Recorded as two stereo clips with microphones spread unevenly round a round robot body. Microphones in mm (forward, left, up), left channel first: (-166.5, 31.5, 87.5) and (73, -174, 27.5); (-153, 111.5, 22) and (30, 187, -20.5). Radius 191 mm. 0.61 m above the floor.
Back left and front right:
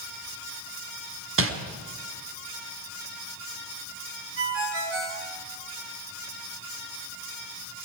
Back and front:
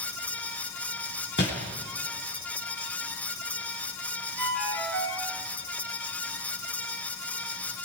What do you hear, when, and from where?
1.4 s crumpling: 90° right, 5 m
4.4 s a ringtone: 90° right, 6.5 m